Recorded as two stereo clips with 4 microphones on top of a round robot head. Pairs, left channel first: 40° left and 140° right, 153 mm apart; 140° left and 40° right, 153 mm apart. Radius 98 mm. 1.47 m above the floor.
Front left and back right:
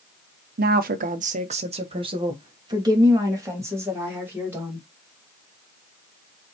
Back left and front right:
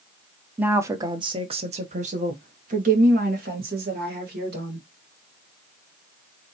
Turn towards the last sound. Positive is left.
turn(degrees=-65)